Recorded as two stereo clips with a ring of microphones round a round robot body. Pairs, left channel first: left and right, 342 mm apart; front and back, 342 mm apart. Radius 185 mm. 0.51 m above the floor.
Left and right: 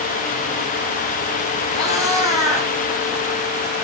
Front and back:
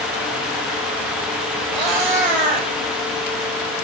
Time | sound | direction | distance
1.7 | a cat meowing | 165° left | 4.5 m